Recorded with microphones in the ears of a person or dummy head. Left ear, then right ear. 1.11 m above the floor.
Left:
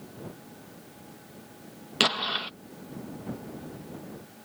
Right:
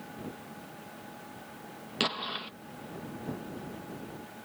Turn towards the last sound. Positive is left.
turn(degrees=15)  # may be behind; listen again after turning